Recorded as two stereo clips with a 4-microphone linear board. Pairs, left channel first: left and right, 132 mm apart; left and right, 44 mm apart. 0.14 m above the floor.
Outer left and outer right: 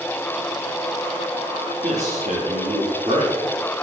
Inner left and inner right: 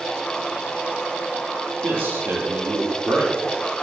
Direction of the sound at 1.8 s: 70° right (ahead or behind).